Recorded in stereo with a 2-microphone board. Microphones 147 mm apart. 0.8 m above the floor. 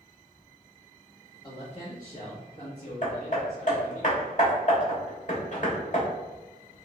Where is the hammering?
55° left (ahead or behind), 1.3 m.